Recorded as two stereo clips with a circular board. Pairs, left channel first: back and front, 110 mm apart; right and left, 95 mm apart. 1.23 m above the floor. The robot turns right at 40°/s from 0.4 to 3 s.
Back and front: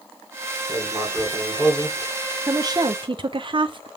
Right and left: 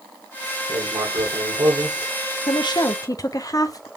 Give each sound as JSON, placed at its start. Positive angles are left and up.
{"t": 0.7, "sound": "writing", "azimuth_deg": 60, "distance_m": 2.0}
{"t": 2.5, "sound": "a woman speaking", "azimuth_deg": -60, "distance_m": 0.5}